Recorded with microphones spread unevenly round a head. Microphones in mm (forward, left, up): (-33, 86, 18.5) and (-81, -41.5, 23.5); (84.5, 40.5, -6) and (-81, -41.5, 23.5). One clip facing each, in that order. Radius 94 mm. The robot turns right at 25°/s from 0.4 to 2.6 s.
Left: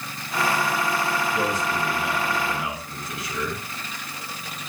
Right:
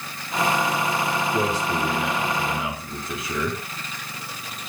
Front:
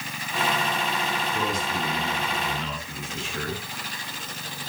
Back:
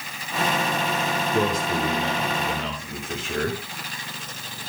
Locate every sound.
1.3 s a man speaking: 140° right, 9.5 m; by 3.6 s 105° right, 9.5 m